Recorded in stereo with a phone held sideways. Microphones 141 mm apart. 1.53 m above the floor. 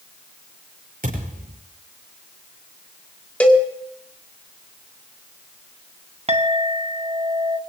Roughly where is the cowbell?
Centre.